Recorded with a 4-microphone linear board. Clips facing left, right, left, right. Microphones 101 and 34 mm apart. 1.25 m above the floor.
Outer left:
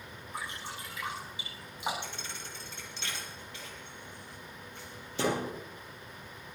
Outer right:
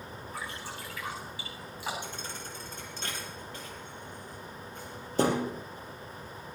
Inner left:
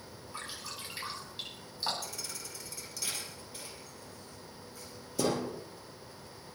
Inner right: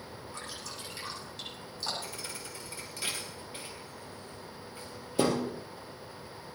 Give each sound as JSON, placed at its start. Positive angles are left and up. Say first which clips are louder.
{"t": 0.3, "sound": "dripping", "louder": "outer left 1 dB, inner left 2 dB", "side_deg": 20, "distance_m": 9.5}
{"t": 2.0, "sound": "a thud", "louder": "outer right 3 dB, inner right 2 dB", "side_deg": -40, "distance_m": 4.0}